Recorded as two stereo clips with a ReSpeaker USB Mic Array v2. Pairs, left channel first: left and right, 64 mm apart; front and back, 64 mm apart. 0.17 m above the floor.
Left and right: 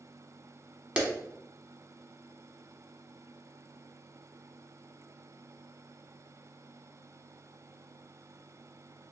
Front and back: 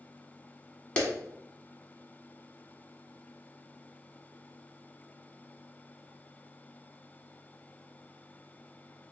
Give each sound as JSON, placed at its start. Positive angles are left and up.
{"t": 1.0, "sound": "a clap", "azimuth_deg": -45, "distance_m": 0.9}